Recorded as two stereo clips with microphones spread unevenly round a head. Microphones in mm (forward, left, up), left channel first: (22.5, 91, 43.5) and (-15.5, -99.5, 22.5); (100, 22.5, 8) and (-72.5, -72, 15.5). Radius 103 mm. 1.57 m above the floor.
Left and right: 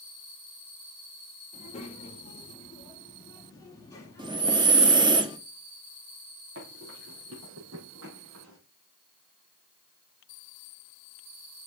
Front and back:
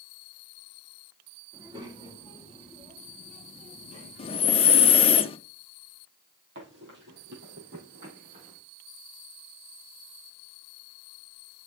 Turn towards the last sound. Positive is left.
turn(degrees=-110)